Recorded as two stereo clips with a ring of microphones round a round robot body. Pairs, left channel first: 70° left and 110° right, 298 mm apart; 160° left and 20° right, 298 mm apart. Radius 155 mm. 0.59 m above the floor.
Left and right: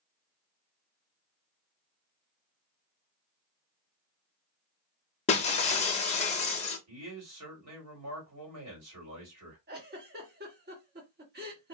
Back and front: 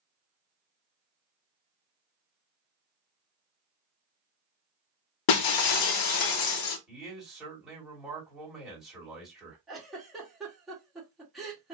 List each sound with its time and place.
5.3 s breaking glass: 135° left, 0.6 m
6.9 s a man speaking: 110° right, 2 m
9.7 s a giggle: 115° right, 1.3 m